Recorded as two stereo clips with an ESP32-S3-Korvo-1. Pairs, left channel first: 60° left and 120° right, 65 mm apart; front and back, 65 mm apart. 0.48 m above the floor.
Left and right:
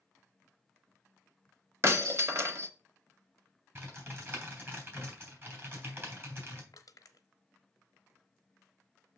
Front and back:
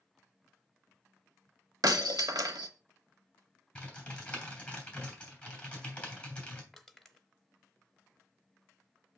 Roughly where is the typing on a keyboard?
Right.